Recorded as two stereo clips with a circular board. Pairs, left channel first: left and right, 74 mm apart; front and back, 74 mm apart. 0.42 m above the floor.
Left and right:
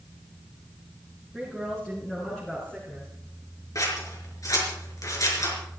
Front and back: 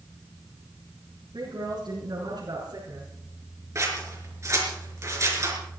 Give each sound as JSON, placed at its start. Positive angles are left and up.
{"t": 1.3, "sound": "a woman speaking", "azimuth_deg": 175, "distance_m": 5.5}
{"t": 3.8, "sound": "scissors", "azimuth_deg": 130, "distance_m": 5.0}